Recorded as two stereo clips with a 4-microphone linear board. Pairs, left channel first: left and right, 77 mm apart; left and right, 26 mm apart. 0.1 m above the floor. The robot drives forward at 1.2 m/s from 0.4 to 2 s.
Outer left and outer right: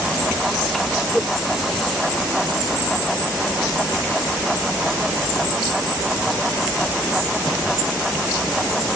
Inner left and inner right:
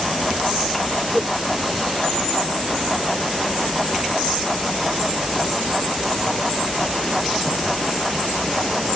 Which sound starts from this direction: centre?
A whoosh, at 1.1 s.